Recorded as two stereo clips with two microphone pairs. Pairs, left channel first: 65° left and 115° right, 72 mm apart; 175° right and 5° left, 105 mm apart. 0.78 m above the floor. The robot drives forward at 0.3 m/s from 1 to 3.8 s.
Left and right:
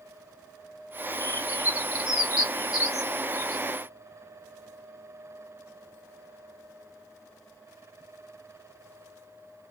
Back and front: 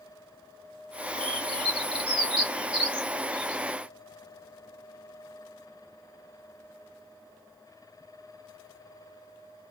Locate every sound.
1.2 s a bird: 25° left, 2.5 m; by 3.6 s 40° left, 1.7 m